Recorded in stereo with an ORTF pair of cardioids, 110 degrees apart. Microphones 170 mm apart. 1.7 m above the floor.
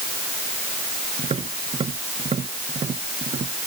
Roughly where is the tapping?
Ahead right.